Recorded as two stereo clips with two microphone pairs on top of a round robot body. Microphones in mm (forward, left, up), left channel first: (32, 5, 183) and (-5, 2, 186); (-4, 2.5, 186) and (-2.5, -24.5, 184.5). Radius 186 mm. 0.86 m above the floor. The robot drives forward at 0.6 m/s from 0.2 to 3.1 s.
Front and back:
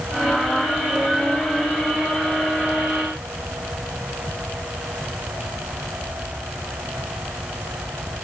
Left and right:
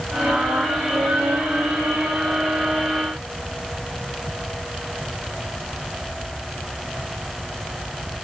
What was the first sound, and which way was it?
Only background noise.